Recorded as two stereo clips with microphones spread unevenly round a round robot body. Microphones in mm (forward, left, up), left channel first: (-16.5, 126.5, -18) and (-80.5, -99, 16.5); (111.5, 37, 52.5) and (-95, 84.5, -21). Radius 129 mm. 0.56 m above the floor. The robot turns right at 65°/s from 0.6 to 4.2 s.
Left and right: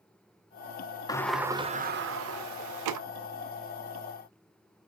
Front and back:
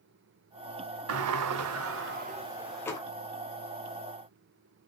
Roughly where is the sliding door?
Behind left.